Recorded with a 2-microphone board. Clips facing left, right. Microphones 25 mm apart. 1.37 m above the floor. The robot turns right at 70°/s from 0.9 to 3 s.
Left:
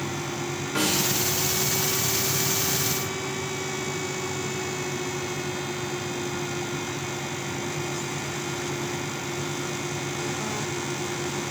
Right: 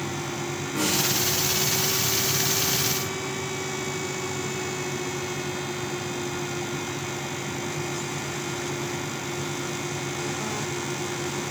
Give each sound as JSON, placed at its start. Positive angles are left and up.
{"t": 0.8, "sound": "a snare drum", "side_deg": 80, "distance_m": 4.5}